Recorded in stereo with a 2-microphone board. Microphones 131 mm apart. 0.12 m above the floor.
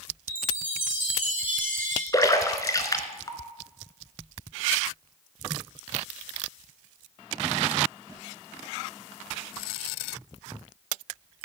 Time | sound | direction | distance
0.3 | a chime | 85° right | 1.4 m
2.1 | a splash | 25° left (ahead or behind) | 0.9 m